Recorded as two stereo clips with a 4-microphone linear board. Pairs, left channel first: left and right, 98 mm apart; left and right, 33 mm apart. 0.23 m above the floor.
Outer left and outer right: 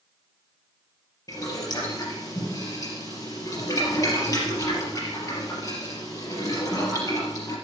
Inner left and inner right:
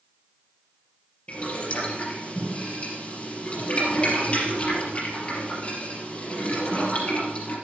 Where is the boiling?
40° left (ahead or behind), 4.5 m.